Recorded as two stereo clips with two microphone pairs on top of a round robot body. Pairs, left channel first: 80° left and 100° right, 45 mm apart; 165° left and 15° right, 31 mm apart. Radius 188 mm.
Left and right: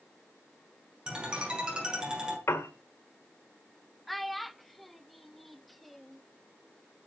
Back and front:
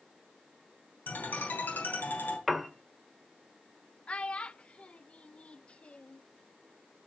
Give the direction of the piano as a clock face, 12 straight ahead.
9 o'clock.